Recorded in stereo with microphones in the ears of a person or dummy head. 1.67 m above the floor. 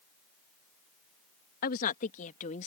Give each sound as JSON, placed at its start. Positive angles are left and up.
{"t": 1.6, "sound": "a woman speaking", "side_deg": 55}